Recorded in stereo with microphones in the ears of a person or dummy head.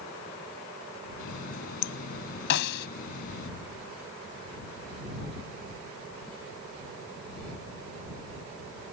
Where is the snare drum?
65° left (ahead or behind).